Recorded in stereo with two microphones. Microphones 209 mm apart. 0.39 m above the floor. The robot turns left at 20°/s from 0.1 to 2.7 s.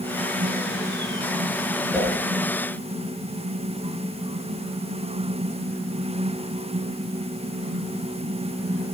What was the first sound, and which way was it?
A whoosh, centre (ahead or behind).